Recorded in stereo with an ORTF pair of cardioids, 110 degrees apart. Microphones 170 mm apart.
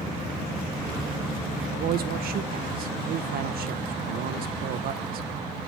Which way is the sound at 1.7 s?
60° right.